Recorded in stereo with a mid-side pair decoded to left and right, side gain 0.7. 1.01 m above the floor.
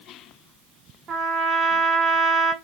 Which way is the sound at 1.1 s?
35° right.